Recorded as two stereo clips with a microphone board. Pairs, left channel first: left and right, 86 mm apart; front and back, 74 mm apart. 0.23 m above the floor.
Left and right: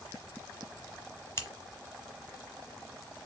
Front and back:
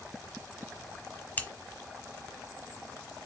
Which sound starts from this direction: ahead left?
Scissors, at 1.4 s.